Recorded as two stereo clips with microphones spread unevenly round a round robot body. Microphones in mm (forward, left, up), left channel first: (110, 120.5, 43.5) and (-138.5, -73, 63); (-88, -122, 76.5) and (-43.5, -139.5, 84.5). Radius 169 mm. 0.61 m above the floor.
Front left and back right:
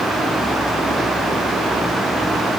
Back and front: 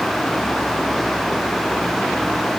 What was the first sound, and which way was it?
Only background noise.